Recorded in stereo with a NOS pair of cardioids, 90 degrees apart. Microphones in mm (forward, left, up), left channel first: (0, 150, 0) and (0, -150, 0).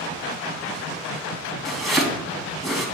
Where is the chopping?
Straight ahead, 2.5 m.